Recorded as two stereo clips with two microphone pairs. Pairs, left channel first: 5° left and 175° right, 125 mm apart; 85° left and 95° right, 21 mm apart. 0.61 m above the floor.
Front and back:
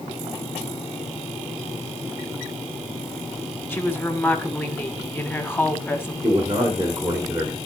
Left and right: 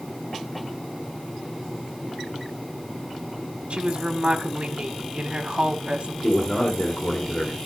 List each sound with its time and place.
3.7 s a woman speaking: 70° right, 1.9 m
6.2 s a man speaking: 115° left, 2 m